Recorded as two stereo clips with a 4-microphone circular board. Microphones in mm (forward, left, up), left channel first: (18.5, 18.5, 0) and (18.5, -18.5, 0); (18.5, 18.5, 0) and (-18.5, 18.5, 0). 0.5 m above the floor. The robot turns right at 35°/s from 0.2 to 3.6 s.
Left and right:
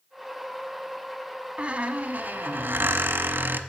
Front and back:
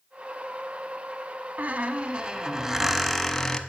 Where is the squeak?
145° right, 0.7 m; by 3.6 s 75° right, 0.7 m.